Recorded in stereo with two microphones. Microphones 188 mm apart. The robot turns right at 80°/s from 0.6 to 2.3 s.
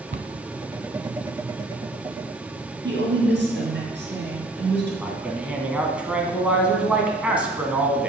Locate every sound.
0.1 s a cupboard door: 70° right (ahead or behind), 0.7 m
2.8 s a woman speaking: 70° right (ahead or behind), 3.5 m
5.0 s a man speaking: 5° right (ahead or behind), 1.7 m